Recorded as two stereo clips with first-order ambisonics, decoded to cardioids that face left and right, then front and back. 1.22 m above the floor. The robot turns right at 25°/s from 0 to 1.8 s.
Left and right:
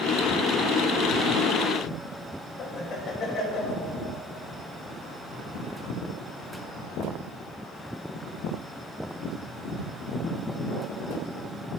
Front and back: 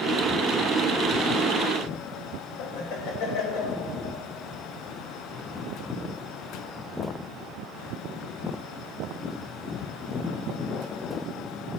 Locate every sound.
2.6 s laughter: 25° left, 1.7 m